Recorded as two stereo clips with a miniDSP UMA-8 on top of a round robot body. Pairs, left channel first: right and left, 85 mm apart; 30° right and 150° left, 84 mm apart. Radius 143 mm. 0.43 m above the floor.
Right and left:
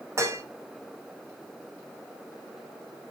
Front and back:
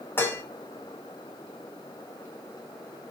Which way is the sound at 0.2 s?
35° left.